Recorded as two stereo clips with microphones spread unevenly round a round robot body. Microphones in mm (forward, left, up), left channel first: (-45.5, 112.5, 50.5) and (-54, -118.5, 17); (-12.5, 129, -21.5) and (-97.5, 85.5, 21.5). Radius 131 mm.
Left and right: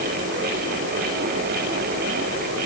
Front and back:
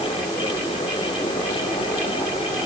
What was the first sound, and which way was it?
Only background noise.